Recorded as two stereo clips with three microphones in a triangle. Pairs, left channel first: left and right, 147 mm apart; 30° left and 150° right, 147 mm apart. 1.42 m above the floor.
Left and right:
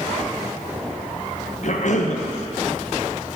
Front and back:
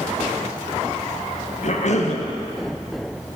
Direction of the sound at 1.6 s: 60° left.